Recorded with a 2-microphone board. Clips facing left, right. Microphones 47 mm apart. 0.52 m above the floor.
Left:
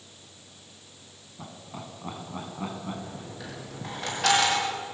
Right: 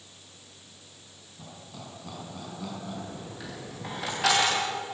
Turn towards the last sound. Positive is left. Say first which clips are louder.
# even
turn(degrees=0)  # may be behind; listen again after turning